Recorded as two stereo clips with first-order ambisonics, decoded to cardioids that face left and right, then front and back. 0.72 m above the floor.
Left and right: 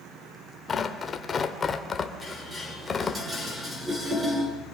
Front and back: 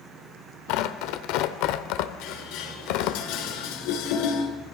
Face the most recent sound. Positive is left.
turn(degrees=-10)